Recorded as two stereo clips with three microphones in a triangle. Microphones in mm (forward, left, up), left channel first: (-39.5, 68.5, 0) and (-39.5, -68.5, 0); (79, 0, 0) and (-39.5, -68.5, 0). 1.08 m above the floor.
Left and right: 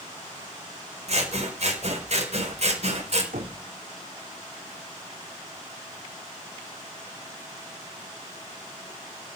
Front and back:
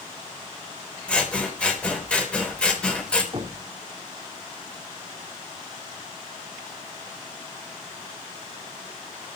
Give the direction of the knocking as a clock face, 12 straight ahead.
3 o'clock.